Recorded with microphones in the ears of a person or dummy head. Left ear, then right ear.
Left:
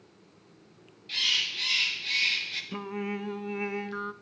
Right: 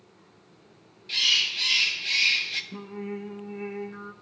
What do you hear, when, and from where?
1.1 s a bird: 10° right (ahead or behind), 1.1 m
2.7 s singing: 45° left (ahead or behind), 0.5 m